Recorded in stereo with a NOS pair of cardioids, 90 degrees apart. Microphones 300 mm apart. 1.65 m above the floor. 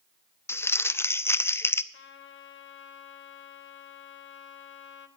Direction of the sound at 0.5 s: 10° left.